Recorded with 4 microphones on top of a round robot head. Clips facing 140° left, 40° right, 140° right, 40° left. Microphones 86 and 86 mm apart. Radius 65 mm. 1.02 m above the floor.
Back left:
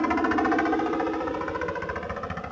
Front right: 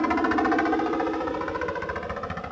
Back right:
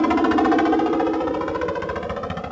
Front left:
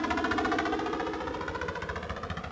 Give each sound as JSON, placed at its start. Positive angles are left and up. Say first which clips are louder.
{"t": 0.0, "sound": "a helicopter", "louder": "front right 1 dB, back right 12 dB", "azimuth_deg": -125}